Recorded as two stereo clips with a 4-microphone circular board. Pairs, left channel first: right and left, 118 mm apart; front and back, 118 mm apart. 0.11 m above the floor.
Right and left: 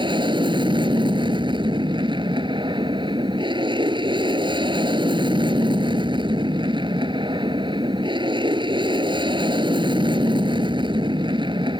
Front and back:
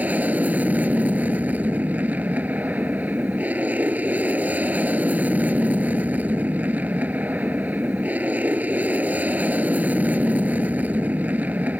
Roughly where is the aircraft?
Left.